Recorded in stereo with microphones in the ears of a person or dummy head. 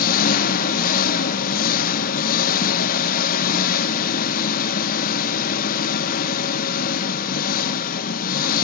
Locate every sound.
0.0 s an engine running: 50° left (ahead or behind), 0.7 m